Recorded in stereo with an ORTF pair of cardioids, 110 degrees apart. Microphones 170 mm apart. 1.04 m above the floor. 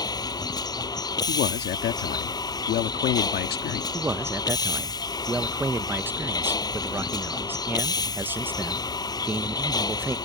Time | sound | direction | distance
0.0 | a vehicle | 20° left | ?
1.3 | a man speaking | 65° left | ?
3.9 | a man speaking | 10° right | ?